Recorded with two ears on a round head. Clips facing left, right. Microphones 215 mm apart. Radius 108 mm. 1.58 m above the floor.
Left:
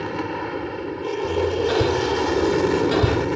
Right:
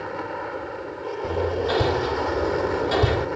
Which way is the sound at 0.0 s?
50° left (ahead or behind).